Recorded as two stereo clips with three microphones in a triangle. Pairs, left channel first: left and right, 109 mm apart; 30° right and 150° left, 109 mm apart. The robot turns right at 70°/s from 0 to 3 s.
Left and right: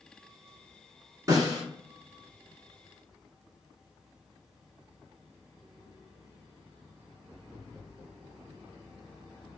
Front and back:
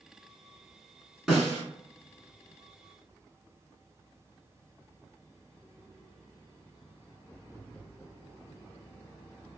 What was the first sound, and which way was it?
A snare drum, 125° right.